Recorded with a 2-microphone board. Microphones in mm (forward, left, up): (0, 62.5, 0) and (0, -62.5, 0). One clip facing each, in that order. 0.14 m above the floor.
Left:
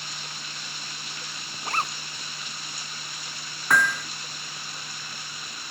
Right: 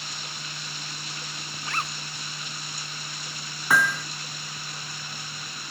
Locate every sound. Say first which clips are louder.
1.6 s a zipper: left 4 dB; 35° left (ahead or behind)
3.7 s hammering: even; 5° right (ahead or behind)